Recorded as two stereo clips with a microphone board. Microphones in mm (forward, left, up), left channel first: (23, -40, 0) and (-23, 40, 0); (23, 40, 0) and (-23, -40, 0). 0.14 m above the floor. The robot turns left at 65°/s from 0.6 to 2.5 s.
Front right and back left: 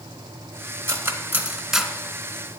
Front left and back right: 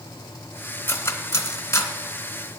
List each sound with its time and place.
0.9 s cutlery clinking: 95° left, 0.9 m; by 1.9 s 30° left, 0.9 m